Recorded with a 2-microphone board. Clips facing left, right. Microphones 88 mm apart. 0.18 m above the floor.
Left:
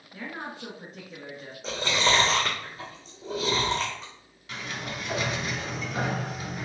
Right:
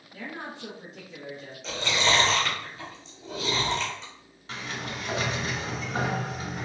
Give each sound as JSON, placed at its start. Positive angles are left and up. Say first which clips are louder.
{"t": 0.1, "sound": "a woman speaking", "louder": "left 1 dB", "side_deg": 40, "distance_m": 1.8}
{"t": 1.6, "sound": "chewing", "louder": "left 1 dB", "side_deg": 40, "distance_m": 2.0}
{"t": 4.5, "sound": "a sliding door", "louder": "even", "side_deg": -30, "distance_m": 1.3}